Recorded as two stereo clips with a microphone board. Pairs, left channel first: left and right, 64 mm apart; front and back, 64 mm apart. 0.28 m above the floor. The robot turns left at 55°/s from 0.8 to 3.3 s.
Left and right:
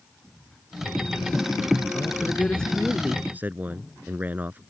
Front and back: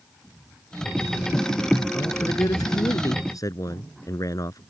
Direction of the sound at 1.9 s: 50° left.